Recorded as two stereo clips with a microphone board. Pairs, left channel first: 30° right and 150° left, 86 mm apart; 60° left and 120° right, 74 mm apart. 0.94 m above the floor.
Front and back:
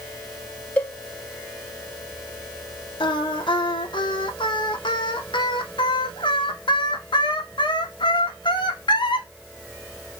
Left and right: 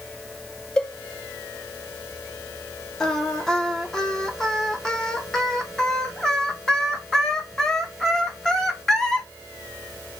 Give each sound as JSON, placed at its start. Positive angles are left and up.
{"t": 0.8, "sound": "a cowbell", "azimuth_deg": 0, "distance_m": 0.7}
{"t": 3.0, "sound": "singing", "azimuth_deg": -25, "distance_m": 0.7}